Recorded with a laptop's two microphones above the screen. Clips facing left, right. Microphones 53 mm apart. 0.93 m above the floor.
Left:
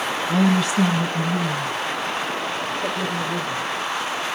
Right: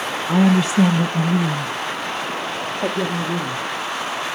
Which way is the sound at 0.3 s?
20° right (ahead or behind).